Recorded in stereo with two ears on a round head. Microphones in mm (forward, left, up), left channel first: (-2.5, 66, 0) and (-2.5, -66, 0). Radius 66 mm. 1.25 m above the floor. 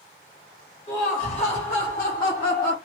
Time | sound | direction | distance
0.9 | laughter | 30° left (ahead or behind) | 1.1 m